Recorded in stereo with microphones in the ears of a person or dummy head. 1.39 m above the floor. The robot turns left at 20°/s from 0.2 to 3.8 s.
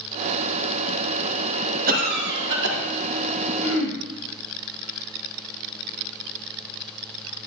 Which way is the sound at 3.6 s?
80° left.